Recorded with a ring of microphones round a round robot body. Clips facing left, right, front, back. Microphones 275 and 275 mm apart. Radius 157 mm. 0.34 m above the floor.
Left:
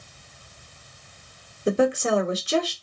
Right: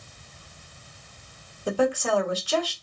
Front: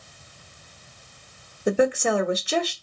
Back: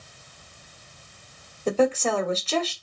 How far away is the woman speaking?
About 1.3 m.